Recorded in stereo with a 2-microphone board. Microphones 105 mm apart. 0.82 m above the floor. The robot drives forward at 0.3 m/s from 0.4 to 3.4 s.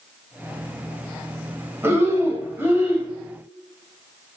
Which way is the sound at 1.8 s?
20° right (ahead or behind).